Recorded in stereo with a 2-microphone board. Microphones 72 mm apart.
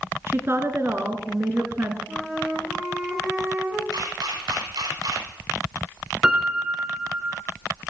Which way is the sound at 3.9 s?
75° right (ahead or behind).